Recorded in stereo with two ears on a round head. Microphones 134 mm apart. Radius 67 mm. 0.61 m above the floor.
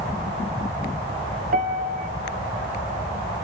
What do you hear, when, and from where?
1.5 s a piano: 55° right (ahead or behind), 1.8 m